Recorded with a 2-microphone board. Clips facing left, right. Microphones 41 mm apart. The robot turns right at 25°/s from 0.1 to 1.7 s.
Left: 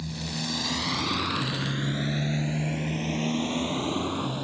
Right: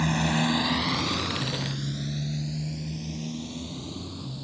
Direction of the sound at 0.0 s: 75° right (ahead or behind).